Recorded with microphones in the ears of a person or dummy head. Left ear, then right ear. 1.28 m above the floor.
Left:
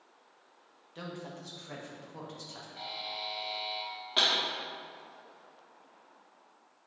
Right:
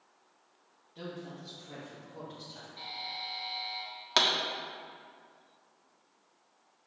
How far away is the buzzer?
About 1.4 m.